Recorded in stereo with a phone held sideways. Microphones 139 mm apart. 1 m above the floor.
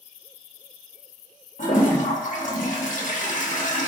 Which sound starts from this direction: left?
A toilet flushing, at 1.6 s.